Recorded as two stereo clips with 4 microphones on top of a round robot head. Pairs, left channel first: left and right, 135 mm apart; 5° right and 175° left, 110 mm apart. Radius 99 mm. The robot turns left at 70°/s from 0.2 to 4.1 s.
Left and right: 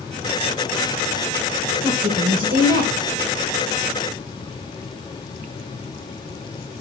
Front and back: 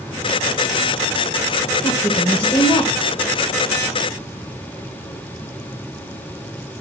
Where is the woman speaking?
20° right, 1.6 m; by 2.9 s 95° right, 1.6 m.